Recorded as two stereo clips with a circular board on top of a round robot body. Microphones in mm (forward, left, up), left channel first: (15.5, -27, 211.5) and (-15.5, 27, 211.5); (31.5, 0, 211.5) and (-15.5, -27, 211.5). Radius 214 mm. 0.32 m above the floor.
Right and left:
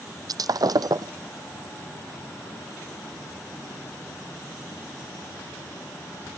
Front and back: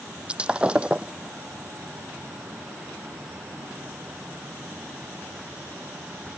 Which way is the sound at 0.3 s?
140° left.